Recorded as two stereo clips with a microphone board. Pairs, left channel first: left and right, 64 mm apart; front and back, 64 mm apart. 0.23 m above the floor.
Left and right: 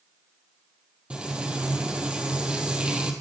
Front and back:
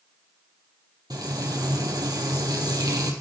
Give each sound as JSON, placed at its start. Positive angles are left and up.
{"t": 1.1, "sound": "frying", "azimuth_deg": -165, "distance_m": 2.0}